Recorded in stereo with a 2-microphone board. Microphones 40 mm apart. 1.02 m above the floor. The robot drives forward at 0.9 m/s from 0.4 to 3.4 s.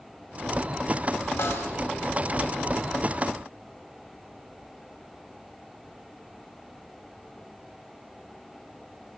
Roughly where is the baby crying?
I don't hear a baby crying.